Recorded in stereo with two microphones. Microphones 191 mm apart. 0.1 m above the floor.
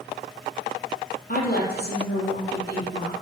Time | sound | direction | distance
1.3 | a woman speaking | 50° left (ahead or behind) | 2.5 m